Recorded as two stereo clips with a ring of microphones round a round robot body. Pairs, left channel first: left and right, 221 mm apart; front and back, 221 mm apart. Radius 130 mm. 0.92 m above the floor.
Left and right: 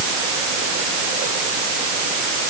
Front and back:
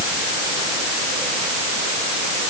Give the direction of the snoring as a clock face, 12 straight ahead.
I don't hear snoring.